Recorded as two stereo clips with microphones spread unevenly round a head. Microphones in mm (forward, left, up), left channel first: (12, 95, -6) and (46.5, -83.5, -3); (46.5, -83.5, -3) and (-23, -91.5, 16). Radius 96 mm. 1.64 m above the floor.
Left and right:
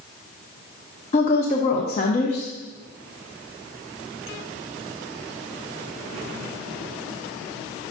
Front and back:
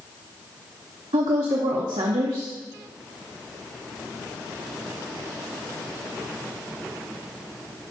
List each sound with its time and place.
1.1 s a woman speaking: 160° left, 0.7 m